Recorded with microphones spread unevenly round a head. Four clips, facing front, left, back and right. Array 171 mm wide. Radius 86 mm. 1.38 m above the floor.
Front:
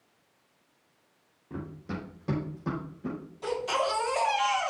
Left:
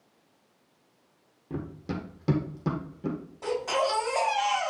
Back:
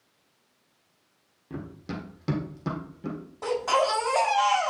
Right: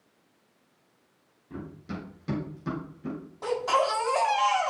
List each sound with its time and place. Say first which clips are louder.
1.5 s running footsteps: left 4 dB, back 1 dB; 110° left, 3 m; by 3.2 s 115° left, 4 m
3.4 s a baby crying: right 2 dB, back 5 dB; 145° right, 4 m